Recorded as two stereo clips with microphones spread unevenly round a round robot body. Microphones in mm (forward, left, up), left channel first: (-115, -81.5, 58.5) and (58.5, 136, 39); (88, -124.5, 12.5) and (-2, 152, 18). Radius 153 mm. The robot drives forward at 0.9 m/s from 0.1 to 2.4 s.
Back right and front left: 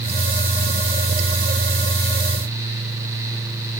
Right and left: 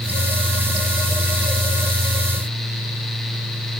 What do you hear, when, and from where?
Only background noise.